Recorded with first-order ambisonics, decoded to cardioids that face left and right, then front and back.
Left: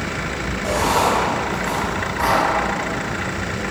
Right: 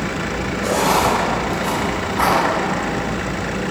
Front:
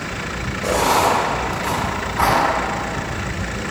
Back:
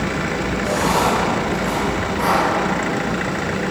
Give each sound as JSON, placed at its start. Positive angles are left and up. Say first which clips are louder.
{"t": 0.6, "sound": "writing", "louder": "right 1 dB, front 3 dB", "azimuth_deg": -50, "distance_m": 1.8}